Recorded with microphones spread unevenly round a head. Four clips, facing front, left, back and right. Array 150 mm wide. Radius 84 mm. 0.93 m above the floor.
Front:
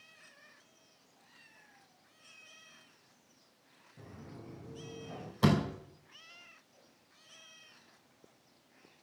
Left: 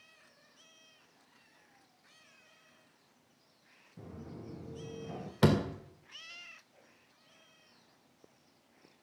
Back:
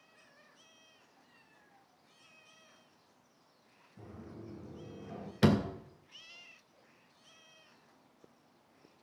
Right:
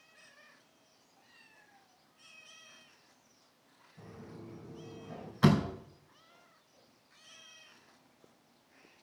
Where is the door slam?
130° left, 2 m.